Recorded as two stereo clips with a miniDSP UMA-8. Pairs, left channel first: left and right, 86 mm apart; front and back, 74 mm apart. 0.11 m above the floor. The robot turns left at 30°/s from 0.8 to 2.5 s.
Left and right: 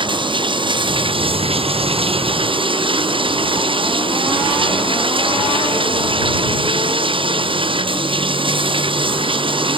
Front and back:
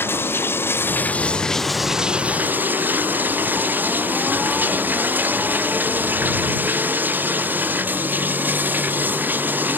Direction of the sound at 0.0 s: 60° right.